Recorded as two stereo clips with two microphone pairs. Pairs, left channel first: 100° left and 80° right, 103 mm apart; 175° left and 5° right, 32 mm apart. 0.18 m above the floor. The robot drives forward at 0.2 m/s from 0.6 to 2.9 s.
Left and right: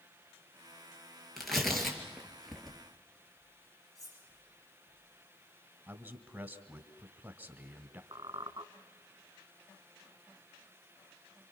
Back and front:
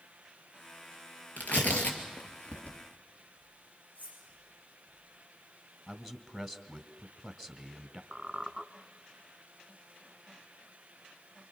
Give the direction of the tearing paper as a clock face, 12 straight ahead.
6 o'clock.